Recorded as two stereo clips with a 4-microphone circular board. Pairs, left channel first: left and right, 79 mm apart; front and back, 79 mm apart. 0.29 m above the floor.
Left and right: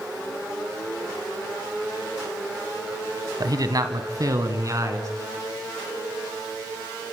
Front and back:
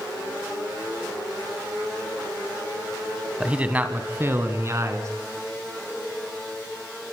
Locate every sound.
3.4 s a man speaking: 105° right, 2 m; by 5.1 s 135° right, 3.5 m